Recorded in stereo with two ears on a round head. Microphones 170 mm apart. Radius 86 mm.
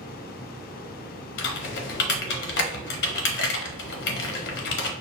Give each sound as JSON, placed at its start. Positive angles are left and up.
{"t": 1.4, "sound": "typing on a keyboard", "side_deg": 65, "distance_m": 0.9}